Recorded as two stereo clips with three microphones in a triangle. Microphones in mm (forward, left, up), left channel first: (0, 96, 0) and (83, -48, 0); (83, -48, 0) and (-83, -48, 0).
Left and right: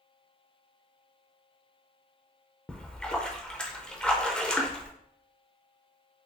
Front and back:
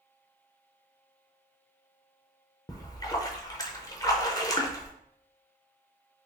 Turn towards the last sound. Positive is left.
turn(degrees=40)